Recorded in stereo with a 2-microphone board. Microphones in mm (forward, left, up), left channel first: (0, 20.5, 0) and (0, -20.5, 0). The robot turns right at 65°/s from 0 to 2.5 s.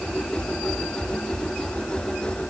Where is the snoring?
I don't hear snoring.